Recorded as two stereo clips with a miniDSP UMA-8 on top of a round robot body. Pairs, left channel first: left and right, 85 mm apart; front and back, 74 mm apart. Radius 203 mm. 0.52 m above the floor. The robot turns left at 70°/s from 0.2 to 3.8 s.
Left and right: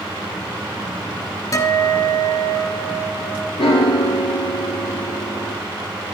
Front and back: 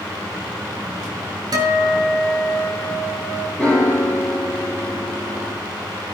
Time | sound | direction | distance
1.5 | a guitar | 145° left | 2 m
3.6 | a piano | 70° left | 5 m